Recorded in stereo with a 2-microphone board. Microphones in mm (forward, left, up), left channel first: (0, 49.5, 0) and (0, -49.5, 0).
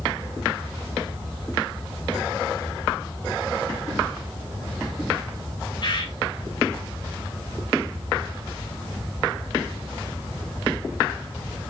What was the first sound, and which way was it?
A bird, 50° left (ahead or behind).